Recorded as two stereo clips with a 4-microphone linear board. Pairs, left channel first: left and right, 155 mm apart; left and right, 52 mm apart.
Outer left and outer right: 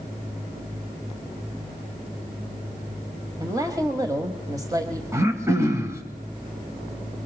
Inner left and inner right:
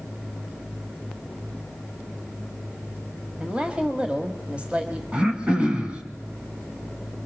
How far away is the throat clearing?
About 2 m.